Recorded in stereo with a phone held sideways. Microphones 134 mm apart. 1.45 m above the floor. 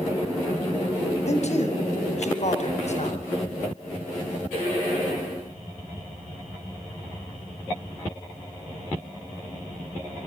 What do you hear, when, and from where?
1.3 s a man speaking: 55° left (ahead or behind), 8.5 m